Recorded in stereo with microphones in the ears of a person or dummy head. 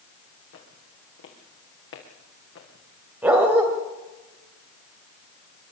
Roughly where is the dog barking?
Centre.